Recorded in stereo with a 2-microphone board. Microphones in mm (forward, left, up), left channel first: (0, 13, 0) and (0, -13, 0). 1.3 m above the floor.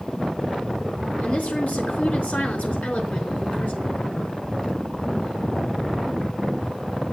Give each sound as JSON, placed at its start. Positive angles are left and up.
{"t": 1.2, "sound": "a woman speaking", "side_deg": 75, "distance_m": 3.5}